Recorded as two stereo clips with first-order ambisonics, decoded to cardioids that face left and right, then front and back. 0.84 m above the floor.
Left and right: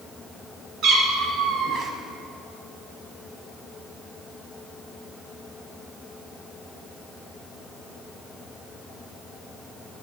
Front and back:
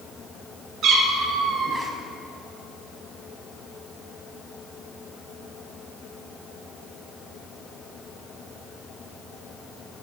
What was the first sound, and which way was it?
A cat meowing, 130° right.